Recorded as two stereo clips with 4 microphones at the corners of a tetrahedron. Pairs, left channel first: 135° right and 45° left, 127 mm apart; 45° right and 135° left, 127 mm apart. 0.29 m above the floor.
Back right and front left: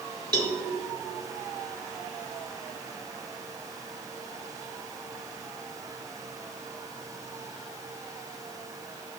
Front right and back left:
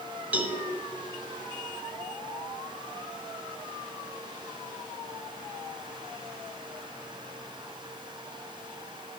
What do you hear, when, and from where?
0.3 s a cowbell: 70° left, 1.2 m